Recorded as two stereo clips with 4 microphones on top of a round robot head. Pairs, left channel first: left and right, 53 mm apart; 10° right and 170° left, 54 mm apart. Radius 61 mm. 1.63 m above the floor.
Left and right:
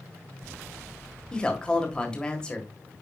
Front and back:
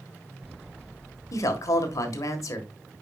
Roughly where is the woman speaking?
Ahead.